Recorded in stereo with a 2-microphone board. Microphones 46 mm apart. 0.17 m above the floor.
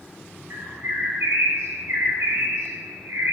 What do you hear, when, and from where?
0.5 s a bird: 65° right (ahead or behind), 3 m